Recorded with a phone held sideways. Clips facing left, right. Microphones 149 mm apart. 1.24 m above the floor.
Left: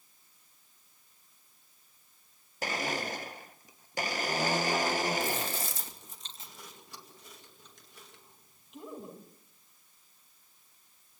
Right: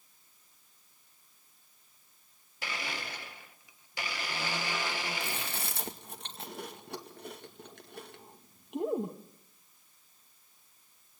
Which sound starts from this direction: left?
A blender, at 2.6 s.